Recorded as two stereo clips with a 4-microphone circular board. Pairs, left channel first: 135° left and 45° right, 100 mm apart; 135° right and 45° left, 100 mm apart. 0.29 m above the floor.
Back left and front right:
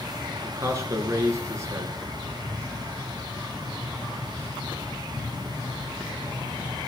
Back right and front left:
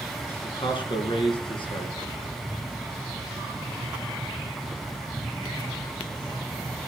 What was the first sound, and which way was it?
A man speaking, 105° right.